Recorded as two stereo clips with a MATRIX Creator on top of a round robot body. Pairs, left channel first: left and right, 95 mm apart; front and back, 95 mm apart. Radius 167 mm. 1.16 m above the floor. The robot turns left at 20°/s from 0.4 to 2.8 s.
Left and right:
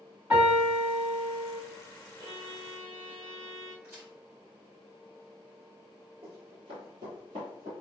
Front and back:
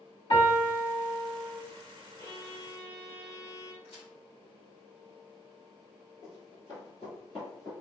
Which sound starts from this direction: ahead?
A piano, at 0.3 s.